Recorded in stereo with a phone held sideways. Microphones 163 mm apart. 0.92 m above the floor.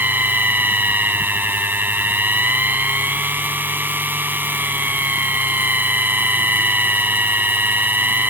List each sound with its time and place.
0.0 s a machine running: 10° right (ahead or behind)